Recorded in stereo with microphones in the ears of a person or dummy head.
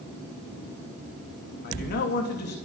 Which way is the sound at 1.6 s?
55° left (ahead or behind).